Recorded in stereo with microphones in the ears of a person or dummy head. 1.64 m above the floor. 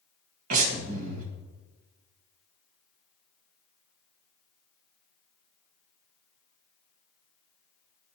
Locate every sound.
0.5 s breathing: 50° right (ahead or behind), 1.5 m